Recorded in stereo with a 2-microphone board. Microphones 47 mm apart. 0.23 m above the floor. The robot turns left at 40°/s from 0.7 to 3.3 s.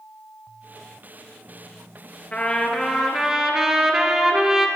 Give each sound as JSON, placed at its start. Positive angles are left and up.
{"t": 2.3, "sound": "a trumpet", "azimuth_deg": 30, "distance_m": 3.5}